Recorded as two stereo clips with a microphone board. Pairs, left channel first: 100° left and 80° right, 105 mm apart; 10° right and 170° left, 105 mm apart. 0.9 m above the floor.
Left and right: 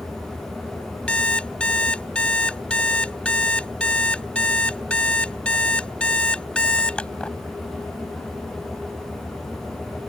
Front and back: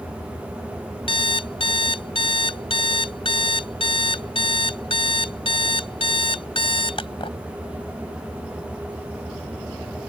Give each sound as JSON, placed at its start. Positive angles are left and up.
{"t": 1.1, "sound": "an alarm clock", "azimuth_deg": 20}